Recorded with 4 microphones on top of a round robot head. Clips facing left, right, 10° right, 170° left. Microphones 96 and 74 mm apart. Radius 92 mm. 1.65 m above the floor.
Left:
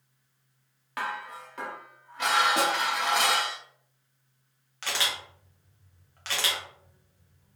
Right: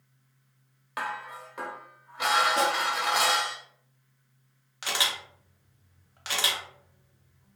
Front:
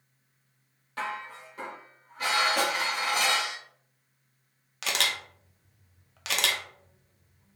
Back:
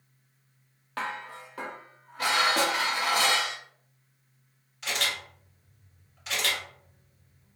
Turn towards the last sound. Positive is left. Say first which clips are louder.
# right 1 dB, front 1 dB
turn(degrees=-10)